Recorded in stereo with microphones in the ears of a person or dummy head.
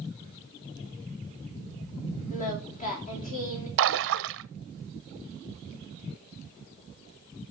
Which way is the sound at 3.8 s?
60° right (ahead or behind).